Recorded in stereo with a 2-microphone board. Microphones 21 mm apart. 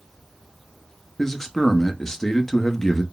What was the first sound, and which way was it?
A man speaking, 20° left (ahead or behind).